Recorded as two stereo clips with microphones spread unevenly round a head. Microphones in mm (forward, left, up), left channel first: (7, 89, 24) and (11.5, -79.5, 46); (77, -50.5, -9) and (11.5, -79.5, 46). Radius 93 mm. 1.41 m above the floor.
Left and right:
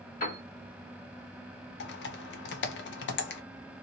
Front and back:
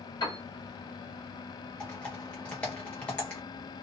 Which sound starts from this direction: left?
Typing on a keyboard, at 1.8 s.